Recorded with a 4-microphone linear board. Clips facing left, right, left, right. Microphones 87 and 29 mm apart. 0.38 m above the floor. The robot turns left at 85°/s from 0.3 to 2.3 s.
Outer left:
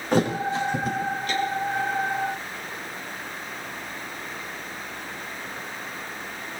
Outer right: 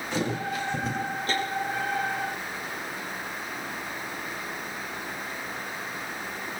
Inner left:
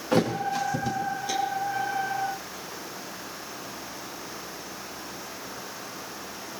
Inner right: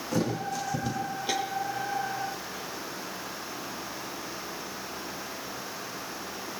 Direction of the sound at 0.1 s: 50° left (ahead or behind).